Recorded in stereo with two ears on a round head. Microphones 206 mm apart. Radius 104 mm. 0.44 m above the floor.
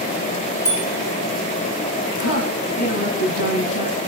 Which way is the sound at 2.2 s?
75° left (ahead or behind).